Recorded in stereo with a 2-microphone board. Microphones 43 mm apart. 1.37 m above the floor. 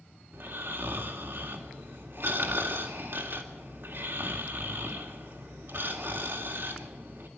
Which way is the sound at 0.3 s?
60° right (ahead or behind).